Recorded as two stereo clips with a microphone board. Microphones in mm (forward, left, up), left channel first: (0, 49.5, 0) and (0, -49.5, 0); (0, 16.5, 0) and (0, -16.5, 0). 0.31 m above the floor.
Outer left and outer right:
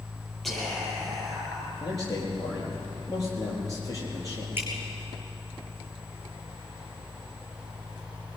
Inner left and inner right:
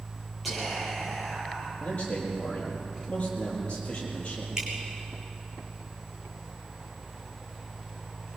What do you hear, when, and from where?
0.4 s whispering: centre (ahead or behind), 9.5 m
1.8 s a man speaking: 35° left (ahead or behind), 7.5 m
4.6 s dripping: 20° right (ahead or behind), 4 m